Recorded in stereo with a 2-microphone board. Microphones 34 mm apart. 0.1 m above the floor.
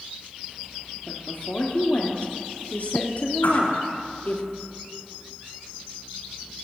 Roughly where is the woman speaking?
Left.